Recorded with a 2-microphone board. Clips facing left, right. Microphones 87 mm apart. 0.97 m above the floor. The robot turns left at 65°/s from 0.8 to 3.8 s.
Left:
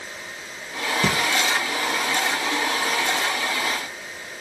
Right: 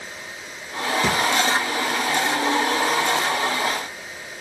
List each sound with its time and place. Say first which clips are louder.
1.0 s breathing: even; 60° left (ahead or behind), 1.3 m; by 1.1 s 55° left (ahead or behind), 1.3 m